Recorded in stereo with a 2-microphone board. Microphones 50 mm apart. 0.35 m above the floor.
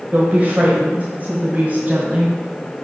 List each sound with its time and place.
0.1 s a woman speaking: 30° right (ahead or behind), 1.4 m